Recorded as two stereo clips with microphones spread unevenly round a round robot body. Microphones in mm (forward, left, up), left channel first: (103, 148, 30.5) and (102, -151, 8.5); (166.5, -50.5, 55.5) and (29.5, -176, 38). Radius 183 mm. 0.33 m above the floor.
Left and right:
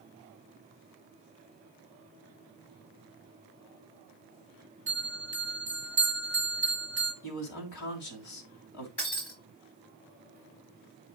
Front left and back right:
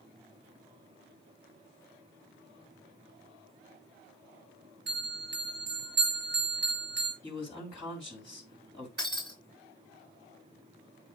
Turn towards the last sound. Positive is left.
turn(degrees=160)